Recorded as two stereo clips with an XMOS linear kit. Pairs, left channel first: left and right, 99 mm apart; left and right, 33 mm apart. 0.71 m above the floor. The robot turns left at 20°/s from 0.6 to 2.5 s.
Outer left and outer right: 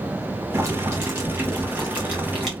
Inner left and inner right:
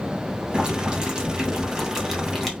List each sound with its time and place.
0.5 s boiling: 135° right, 1.2 m; by 2.5 s 175° right, 1.2 m